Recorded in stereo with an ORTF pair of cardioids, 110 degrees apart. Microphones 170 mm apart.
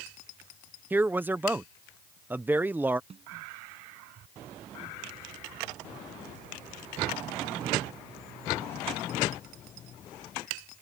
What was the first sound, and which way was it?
A man speaking, 10° right.